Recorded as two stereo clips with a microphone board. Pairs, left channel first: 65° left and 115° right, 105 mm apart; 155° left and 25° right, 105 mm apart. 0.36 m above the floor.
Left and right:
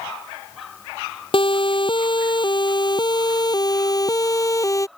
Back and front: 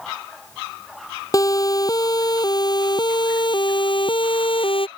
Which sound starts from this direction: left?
A siren, at 1.3 s.